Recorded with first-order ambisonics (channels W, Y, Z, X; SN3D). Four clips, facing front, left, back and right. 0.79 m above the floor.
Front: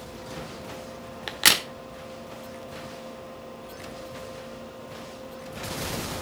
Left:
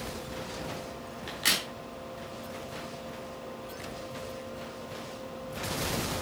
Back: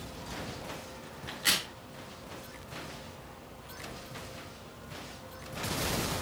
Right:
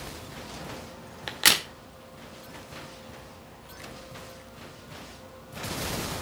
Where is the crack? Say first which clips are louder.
Right 6 dB, front 9 dB; 30° right, 1.1 m.